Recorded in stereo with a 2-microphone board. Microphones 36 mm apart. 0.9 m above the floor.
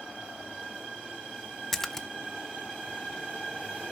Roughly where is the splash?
Centre.